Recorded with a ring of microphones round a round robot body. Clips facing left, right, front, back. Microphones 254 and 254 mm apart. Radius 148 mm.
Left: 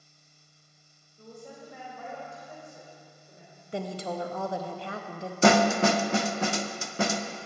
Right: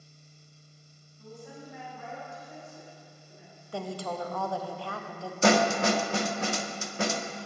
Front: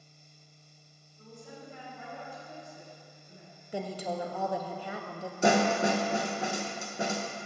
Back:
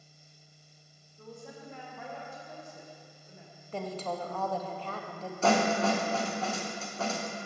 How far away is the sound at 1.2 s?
About 3 m.